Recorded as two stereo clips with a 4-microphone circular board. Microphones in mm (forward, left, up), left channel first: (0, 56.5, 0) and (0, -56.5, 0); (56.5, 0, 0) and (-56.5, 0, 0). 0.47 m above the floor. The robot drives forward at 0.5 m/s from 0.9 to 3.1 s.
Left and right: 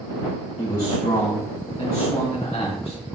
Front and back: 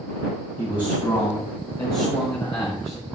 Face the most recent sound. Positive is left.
turn(degrees=65)